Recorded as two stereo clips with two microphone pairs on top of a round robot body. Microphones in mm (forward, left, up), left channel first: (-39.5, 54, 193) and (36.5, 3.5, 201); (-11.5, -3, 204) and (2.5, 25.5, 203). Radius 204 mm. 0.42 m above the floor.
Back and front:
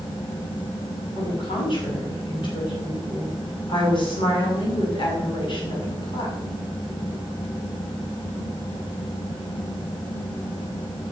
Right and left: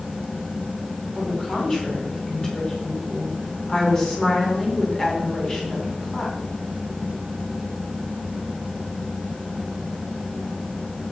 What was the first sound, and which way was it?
A woman speaking, 175° left.